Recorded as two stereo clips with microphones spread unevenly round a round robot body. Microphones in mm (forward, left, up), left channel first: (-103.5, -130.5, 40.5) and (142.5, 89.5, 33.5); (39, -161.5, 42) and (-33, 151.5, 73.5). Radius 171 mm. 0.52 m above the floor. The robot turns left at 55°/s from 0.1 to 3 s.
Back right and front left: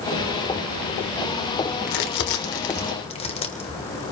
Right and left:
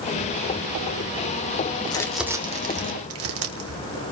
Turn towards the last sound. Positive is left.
turn(degrees=150)